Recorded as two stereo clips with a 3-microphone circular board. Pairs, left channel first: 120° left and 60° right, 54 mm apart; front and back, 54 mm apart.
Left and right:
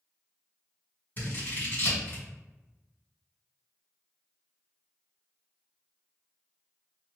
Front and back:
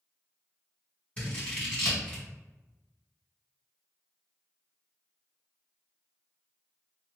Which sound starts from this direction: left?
Scissors, at 1.2 s.